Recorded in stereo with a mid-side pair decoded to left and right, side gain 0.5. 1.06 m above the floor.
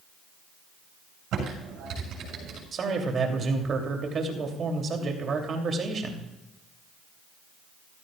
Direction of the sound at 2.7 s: 45° right.